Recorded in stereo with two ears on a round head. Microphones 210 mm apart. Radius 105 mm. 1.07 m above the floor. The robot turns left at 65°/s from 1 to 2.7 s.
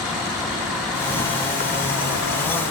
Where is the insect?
Straight behind, 1.3 m; by 2.7 s 70° left, 1.3 m.